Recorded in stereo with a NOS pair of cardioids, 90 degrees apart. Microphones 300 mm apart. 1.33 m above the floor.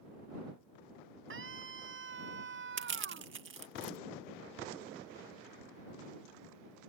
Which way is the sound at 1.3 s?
40° right.